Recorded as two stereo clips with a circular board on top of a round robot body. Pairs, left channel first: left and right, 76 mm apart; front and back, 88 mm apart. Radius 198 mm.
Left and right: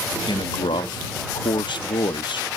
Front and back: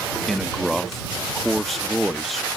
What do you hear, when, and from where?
0.3 s a man speaking: 90° left